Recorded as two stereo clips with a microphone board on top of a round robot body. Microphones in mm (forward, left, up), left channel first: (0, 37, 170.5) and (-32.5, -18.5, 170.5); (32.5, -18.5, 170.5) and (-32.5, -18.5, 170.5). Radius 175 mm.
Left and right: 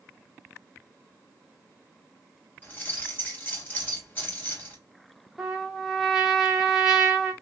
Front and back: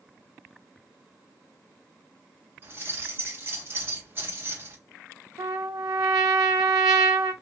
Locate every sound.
2.6 s keys jangling: 125° left, 2.0 m
5.4 s a trumpet: 155° left, 0.6 m